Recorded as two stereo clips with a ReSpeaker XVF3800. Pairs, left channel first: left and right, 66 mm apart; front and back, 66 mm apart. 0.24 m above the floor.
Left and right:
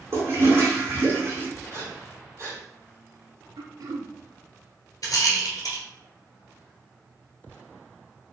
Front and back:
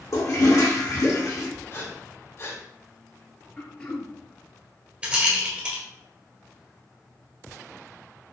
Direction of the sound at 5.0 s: 110° left.